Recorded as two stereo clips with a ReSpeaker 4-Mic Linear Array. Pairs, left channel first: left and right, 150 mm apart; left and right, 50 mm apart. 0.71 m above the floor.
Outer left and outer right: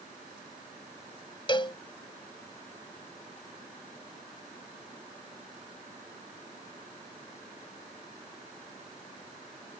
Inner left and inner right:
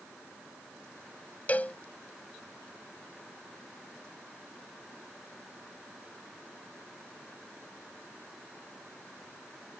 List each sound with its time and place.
1.5 s a cowbell: 35° left (ahead or behind)